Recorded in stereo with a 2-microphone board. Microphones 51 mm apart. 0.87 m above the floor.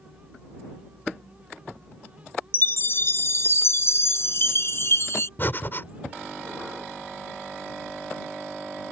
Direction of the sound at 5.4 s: 45° left (ahead or behind).